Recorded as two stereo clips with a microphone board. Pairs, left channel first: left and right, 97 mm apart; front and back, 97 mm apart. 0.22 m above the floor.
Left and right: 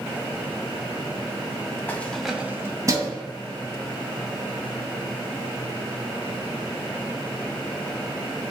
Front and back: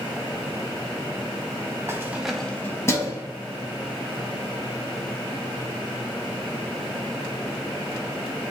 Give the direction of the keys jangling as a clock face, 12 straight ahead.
7 o'clock.